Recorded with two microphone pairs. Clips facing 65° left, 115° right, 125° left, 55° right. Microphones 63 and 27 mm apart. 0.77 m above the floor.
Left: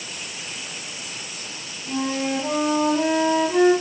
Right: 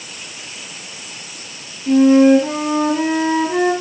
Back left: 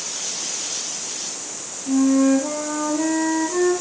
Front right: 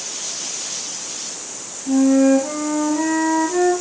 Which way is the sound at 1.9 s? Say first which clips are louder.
Right 15 dB, front right 3 dB; 120° right.